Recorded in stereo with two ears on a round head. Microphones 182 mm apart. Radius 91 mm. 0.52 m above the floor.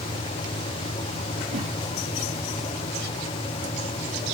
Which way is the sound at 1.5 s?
35° right (ahead or behind).